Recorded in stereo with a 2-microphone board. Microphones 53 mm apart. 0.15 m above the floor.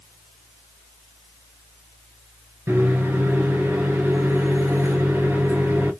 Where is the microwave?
55° right (ahead or behind), 1.9 m.